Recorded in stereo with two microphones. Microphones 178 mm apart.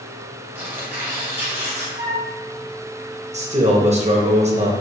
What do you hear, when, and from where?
0.6 s tearing paper: 10° right (ahead or behind), 1.3 m
2.0 s a flute: 45° right (ahead or behind), 1.3 m
3.3 s a man speaking: 40° right (ahead or behind), 0.7 m